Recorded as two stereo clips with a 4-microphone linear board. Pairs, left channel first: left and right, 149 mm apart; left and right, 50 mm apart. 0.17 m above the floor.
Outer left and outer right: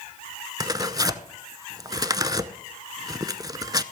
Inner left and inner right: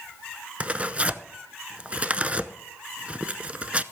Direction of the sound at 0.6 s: 25° right (ahead or behind).